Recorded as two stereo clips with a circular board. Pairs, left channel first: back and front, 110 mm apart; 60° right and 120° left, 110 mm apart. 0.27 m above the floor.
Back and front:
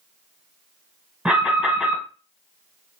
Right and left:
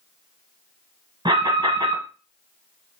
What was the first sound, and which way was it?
An alarm, 80° left.